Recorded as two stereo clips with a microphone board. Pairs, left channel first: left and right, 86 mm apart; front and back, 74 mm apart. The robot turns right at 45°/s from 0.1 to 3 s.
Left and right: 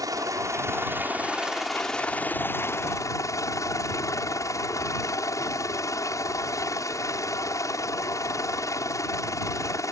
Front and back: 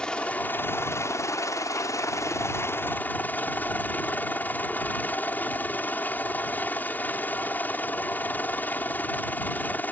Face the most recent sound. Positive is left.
turn(degrees=60)